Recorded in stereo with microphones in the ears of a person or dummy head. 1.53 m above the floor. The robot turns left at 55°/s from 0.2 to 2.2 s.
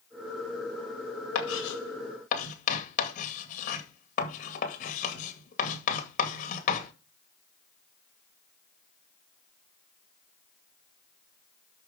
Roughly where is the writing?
Left.